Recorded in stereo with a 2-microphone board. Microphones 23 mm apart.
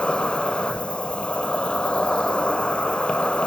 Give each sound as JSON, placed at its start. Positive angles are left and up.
{"t": 0.0, "sound": "an insect", "side_deg": 65, "distance_m": 1.4}